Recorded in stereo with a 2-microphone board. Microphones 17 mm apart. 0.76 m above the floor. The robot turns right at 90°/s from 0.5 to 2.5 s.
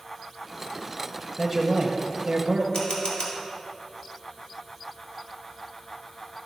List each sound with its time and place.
1.4 s a man speaking: 170° left, 0.7 m; by 2.6 s 85° right, 0.7 m
2.7 s a camera shutter: 90° left, 2 m